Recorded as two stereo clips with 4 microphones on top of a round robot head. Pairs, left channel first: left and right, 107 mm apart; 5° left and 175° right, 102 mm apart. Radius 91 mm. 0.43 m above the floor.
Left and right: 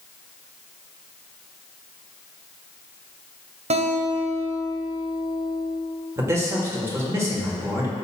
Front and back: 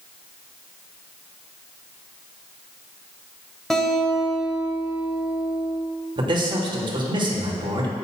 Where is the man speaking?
150° right, 1.8 m.